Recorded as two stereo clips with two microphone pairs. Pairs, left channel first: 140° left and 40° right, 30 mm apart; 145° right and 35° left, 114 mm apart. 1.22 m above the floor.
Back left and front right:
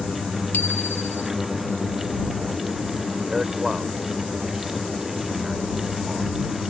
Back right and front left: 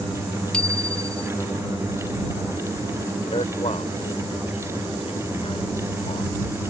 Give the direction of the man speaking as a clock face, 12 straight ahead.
4 o'clock.